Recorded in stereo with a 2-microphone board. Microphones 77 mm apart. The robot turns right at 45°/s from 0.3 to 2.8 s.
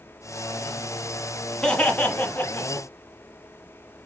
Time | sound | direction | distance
1.6 | laughter | 10° left (ahead or behind) | 1.2 m